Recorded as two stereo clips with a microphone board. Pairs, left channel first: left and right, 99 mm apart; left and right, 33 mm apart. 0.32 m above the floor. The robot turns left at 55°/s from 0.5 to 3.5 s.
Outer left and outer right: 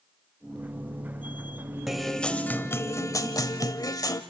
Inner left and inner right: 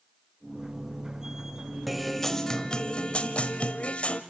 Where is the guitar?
175° right, 1.0 m; by 4.2 s 95° left, 1.0 m.